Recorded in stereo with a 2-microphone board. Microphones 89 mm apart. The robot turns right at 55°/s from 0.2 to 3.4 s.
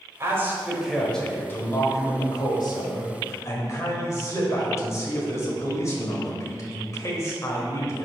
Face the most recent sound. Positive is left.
turn(degrees=135)